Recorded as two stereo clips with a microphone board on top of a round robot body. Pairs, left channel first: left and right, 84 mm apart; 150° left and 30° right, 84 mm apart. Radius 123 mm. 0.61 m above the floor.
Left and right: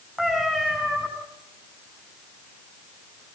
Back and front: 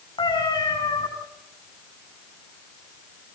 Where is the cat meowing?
Straight behind, 7.5 m.